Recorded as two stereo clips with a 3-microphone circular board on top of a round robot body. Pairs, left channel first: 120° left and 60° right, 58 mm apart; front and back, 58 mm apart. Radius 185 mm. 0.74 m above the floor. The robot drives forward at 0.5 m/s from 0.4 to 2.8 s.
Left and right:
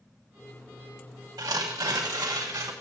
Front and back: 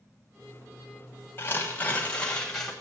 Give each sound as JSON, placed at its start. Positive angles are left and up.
{"t": 1.4, "sound": "tearing paper", "azimuth_deg": -50, "distance_m": 1.2}